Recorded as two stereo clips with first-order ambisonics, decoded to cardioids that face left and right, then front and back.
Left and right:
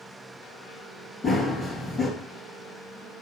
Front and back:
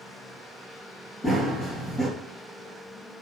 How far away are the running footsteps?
About 1.3 m.